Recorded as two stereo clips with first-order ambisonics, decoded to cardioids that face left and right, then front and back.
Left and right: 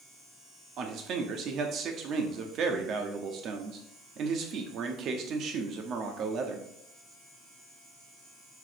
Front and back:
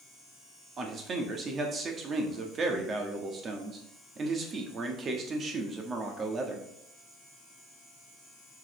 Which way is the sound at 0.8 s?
125° right.